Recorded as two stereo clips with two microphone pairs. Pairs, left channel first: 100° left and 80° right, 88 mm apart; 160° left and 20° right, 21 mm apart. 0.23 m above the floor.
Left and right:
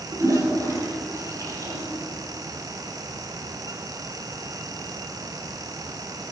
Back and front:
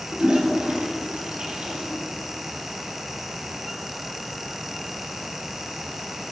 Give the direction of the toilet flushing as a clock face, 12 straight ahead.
1 o'clock.